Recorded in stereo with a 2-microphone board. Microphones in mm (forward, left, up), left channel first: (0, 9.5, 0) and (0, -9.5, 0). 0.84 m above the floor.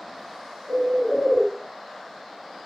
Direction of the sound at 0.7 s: 25° right (ahead or behind).